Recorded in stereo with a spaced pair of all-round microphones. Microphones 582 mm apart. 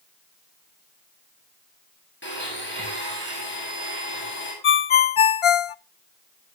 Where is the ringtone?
60° left (ahead or behind), 0.5 m.